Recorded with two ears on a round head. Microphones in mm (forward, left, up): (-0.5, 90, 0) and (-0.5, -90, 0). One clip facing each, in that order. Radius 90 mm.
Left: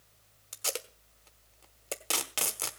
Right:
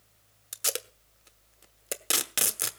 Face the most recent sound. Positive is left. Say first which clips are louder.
# right 2 dB
turn(degrees=-20)  # may be behind; listen again after turning